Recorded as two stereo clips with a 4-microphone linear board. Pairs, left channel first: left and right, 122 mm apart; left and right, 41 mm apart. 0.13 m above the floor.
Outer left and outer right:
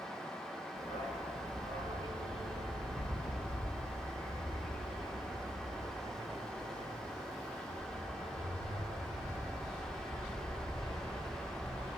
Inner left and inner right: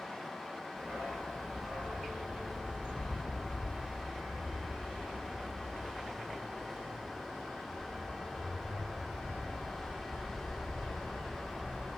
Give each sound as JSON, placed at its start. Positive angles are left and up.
{"t": 0.8, "sound": "a dog barking", "side_deg": -80, "distance_m": 5.0}